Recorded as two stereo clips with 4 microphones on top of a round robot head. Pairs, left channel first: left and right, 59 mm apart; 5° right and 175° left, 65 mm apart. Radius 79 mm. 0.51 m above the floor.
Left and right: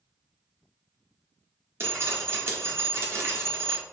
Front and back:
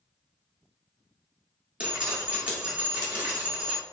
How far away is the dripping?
About 1.3 m.